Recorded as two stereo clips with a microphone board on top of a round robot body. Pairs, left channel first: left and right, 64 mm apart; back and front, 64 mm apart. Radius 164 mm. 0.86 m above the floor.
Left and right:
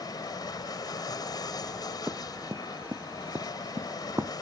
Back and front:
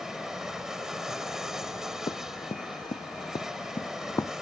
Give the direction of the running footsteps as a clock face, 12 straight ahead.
5 o'clock.